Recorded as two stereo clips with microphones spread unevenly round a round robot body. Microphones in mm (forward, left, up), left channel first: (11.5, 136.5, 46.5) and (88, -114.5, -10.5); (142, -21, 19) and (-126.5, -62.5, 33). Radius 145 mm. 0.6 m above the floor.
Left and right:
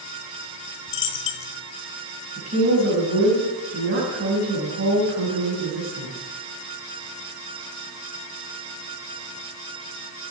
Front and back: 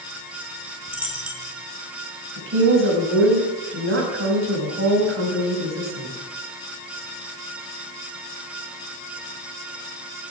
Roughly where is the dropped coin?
Left.